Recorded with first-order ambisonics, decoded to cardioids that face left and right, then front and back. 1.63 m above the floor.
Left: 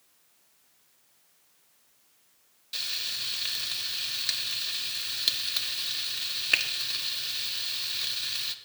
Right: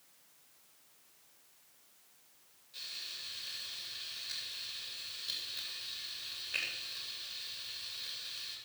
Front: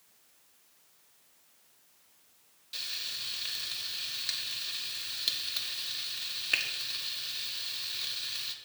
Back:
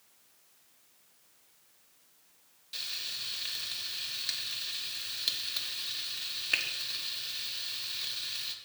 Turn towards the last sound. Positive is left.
turn(degrees=90)